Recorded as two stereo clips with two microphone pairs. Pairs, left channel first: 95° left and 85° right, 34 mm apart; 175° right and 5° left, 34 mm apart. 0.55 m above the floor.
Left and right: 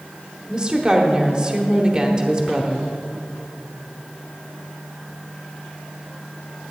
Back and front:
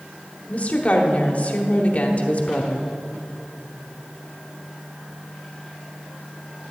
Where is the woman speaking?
145° right, 1.1 m.